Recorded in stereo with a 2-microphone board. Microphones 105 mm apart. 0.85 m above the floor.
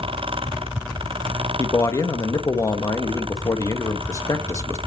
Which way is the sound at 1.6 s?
30° left (ahead or behind).